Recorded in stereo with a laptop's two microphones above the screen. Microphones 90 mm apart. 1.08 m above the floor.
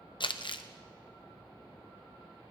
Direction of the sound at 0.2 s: 60° left (ahead or behind).